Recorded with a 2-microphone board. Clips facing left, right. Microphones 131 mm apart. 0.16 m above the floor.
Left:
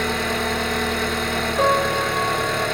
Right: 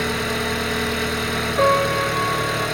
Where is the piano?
30° right (ahead or behind), 2.5 m.